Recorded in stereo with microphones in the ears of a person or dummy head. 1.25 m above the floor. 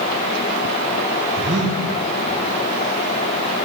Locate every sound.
1.4 s breathing: 55° right (ahead or behind), 2 m